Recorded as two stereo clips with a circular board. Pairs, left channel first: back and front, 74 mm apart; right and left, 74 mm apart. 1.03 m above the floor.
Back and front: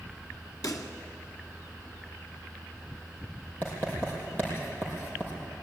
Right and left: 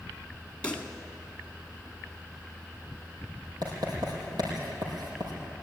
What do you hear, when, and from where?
0.6 s a pop: 160° right, 1.9 m
3.6 s writing: 115° left, 6.5 m